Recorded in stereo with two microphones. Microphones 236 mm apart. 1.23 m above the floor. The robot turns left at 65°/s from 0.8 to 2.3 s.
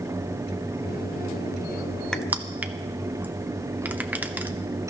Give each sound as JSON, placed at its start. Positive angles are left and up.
{"t": 2.1, "sound": "crushing", "side_deg": 5, "distance_m": 0.7}